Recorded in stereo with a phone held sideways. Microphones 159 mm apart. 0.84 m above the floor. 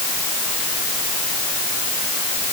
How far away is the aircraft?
No aircraft in this recording.